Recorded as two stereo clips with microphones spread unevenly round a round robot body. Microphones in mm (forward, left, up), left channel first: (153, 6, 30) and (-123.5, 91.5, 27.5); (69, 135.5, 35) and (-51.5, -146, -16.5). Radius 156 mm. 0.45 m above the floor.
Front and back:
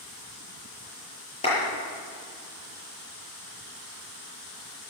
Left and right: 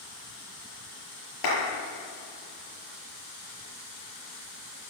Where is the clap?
55° left, 7.5 m.